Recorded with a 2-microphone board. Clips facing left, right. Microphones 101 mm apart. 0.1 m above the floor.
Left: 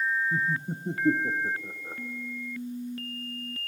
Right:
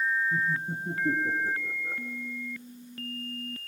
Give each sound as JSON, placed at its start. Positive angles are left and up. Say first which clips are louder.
{"t": 0.3, "sound": "laughter", "louder": "even", "side_deg": 20, "distance_m": 1.1}